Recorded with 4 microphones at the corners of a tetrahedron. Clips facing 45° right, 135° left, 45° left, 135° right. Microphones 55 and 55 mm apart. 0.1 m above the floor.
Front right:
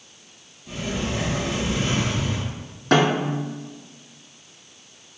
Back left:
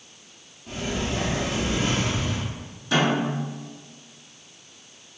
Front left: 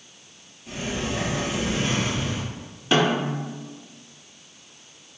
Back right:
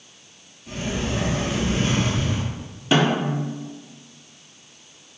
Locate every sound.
0.7 s a sliding door: 130° left, 1.6 m
2.9 s a snare drum: 50° right, 0.8 m